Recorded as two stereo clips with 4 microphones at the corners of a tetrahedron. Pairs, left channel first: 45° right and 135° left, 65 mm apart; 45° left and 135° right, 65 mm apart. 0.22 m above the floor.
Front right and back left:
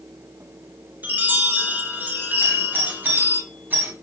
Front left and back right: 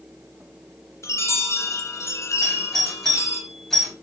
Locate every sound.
1.0 s a chime: 80° left, 1.9 m
2.4 s a doorbell: 125° left, 2.5 m